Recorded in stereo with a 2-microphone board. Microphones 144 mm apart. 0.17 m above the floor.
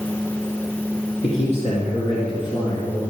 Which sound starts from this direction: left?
A man speaking, at 1.2 s.